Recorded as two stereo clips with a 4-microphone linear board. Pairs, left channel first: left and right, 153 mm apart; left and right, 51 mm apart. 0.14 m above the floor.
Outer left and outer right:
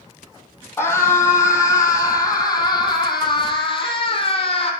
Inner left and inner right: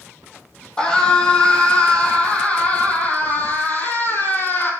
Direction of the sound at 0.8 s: 15° left (ahead or behind).